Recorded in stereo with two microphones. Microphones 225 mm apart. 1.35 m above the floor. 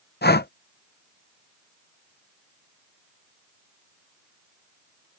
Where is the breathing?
45° left (ahead or behind).